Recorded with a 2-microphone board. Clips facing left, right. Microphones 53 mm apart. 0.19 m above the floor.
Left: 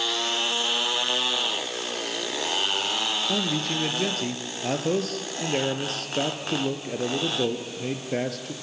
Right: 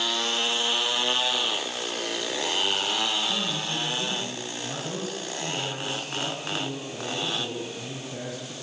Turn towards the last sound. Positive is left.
turn(degrees=65)  # may be behind; listen again after turning